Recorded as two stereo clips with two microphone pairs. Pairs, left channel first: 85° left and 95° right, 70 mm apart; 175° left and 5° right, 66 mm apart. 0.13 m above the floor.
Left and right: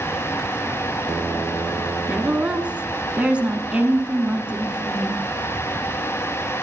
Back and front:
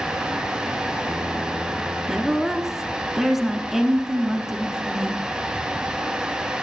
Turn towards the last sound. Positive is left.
turn(degrees=-75)